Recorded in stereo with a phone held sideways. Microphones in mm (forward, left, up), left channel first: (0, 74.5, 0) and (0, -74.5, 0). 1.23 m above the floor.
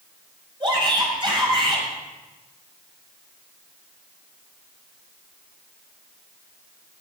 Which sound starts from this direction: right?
A shout, at 0.6 s.